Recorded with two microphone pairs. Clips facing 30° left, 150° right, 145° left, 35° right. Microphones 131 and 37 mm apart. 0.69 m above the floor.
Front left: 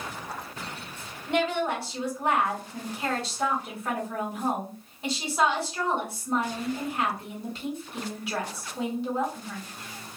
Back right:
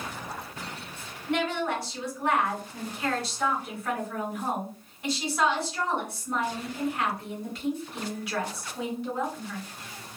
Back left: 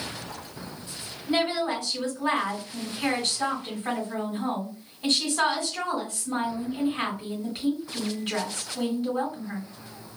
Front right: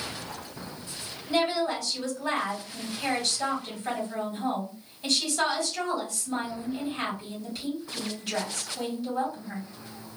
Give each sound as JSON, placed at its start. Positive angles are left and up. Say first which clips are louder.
{"t": 1.3, "sound": "a woman speaking", "louder": "front left 2 dB, even", "azimuth_deg": 95, "distance_m": 1.9}